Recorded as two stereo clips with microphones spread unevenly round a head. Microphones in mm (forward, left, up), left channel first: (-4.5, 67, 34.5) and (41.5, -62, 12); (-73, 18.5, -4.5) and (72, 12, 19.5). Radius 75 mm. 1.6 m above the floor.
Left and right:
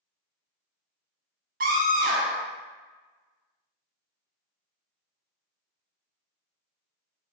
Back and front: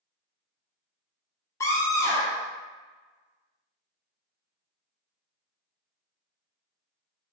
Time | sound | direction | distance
1.6 | a scream | 110° right | 1.1 m